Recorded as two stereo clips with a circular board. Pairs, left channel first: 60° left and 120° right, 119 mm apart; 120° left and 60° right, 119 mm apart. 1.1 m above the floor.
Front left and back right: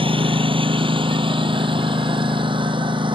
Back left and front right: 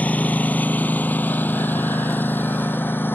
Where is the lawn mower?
160° right; by 3.2 s 165° right.